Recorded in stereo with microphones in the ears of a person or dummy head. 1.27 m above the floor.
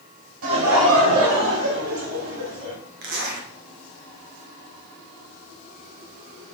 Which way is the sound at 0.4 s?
75° right (ahead or behind).